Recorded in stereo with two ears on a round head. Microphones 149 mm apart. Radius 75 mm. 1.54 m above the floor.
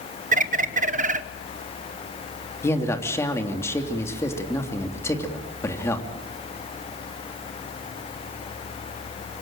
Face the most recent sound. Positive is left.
turn(degrees=15)  # may be behind; listen again after turning